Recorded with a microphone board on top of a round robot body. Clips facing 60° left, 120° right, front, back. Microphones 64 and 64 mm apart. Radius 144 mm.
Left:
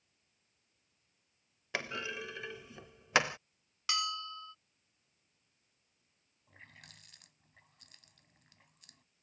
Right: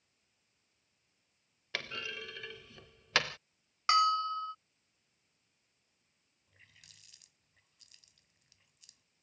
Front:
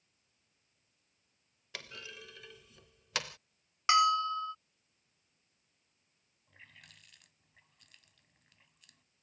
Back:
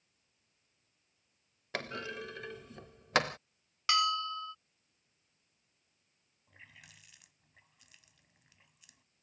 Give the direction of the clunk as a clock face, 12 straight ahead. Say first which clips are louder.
Left 3 dB, back 9 dB; 8 o'clock.